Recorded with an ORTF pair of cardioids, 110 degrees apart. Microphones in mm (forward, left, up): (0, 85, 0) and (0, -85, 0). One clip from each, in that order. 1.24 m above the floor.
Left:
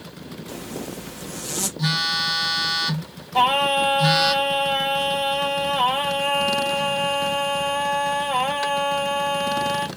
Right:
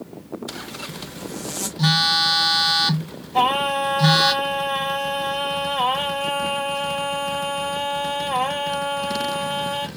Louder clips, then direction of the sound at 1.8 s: Right 5 dB; 25° right.